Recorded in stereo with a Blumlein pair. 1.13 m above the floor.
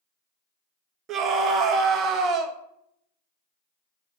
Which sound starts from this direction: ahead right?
A scream, at 1.1 s.